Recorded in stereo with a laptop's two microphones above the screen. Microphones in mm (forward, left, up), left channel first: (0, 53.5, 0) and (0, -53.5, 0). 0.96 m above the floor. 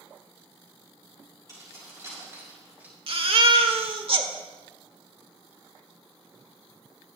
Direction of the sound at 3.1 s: 60° right (ahead or behind).